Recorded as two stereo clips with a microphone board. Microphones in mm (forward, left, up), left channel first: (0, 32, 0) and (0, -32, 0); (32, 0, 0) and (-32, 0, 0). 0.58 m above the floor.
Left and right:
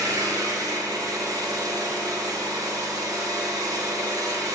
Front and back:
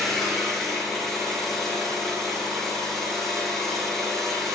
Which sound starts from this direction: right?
An engine running, at 0.0 s.